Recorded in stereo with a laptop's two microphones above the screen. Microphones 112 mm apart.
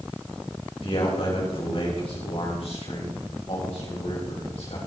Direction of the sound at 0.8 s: 55° left (ahead or behind).